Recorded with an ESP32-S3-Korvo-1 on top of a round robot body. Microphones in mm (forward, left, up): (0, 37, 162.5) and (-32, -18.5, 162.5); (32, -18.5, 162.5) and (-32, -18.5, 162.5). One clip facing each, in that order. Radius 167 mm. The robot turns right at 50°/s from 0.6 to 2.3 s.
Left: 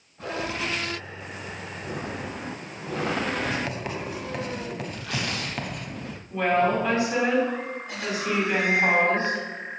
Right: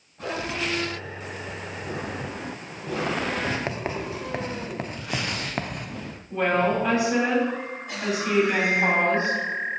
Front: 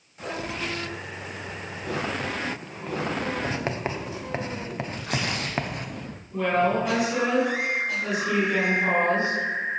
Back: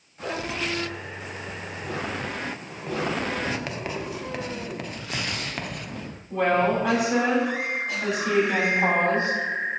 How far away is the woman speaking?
About 5.5 m.